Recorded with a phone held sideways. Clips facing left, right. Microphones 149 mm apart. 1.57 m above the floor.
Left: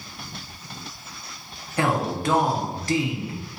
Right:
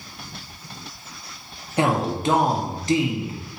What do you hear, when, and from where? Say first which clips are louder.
1.8 s a man speaking: right 2 dB; 20° right (ahead or behind), 0.7 m